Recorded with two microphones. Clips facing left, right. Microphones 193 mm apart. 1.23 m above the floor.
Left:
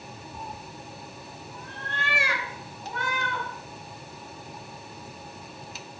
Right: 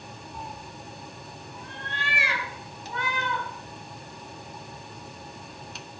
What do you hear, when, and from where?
0.3 s a cat meowing: 40° left (ahead or behind), 1.3 m; by 3.5 s 45° left (ahead or behind), 4 m